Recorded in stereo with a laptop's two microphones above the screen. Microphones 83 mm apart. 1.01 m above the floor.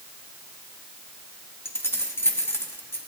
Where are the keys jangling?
30° left (ahead or behind), 0.7 m.